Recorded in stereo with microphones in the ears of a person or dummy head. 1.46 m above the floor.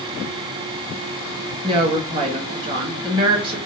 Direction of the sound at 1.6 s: 25° right (ahead or behind).